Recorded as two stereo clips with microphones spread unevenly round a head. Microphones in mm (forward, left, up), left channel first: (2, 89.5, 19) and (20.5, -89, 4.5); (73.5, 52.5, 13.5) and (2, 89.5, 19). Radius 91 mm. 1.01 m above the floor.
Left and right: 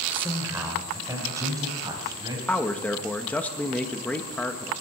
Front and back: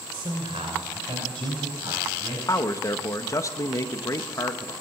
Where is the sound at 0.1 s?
165° right, 3 m; by 2.4 s 155° right, 5.5 m.